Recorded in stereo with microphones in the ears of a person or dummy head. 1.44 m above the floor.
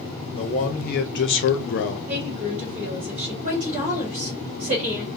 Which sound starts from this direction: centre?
A woman speaking, at 2.1 s.